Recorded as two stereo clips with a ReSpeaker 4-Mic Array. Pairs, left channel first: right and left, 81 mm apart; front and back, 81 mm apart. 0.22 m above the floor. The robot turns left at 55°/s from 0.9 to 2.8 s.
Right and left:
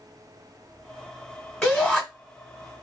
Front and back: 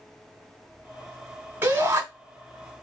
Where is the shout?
170° right, 1.2 m; by 2.0 s 170° left, 1.2 m.